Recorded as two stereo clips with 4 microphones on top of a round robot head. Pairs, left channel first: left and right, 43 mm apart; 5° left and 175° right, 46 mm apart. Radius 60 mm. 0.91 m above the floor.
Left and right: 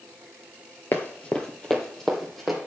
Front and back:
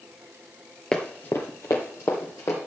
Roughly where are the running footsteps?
Left.